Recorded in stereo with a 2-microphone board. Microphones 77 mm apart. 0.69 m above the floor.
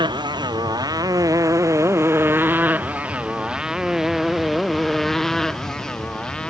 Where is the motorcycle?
75° right (ahead or behind); by 6.5 s 10° left (ahead or behind).